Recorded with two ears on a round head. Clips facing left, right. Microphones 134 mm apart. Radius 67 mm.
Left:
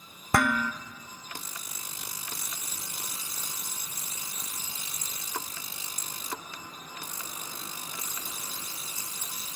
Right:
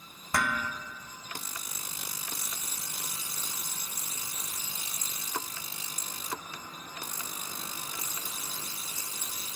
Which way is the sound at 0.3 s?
45° left (ahead or behind).